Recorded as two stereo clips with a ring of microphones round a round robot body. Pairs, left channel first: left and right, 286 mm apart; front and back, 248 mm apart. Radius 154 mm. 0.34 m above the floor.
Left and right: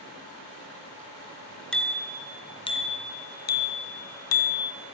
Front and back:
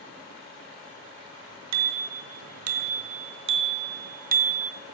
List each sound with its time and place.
1.7 s a bicycle bell: 175° left, 3.5 m; by 4.7 s 120° left, 2.5 m